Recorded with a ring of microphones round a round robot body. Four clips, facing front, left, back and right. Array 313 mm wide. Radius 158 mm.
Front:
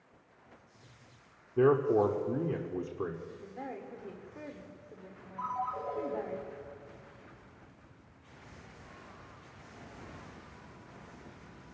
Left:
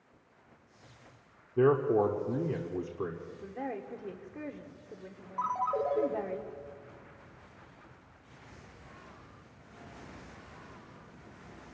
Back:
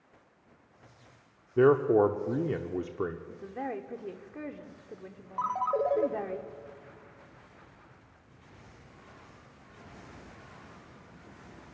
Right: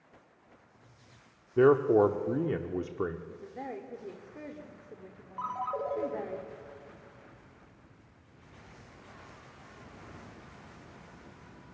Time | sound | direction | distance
1.6 | a man speaking | 140° right | 1.1 m
3.3 | a woman speaking | 170° left | 1.5 m
5.4 | a ringtone | 170° left | 1.7 m